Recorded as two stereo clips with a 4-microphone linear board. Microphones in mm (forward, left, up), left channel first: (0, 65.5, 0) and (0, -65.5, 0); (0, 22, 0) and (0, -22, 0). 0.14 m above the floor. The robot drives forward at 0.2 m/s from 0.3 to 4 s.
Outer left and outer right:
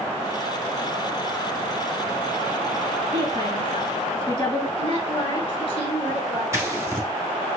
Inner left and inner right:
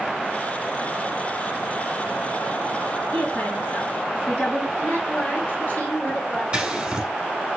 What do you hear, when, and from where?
3.1 s a woman speaking: 40° left (ahead or behind), 2 m
4.8 s a woman speaking: 50° left (ahead or behind), 2.5 m
6.5 s scissors: 20° right (ahead or behind), 1.0 m